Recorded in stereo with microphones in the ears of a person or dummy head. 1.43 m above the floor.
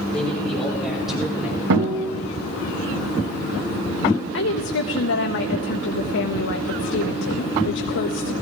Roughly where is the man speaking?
Centre.